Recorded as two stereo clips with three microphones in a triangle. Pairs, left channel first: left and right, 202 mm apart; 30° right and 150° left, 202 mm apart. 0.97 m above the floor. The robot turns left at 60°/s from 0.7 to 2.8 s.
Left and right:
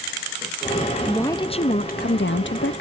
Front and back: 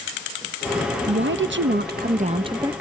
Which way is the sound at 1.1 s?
175° left.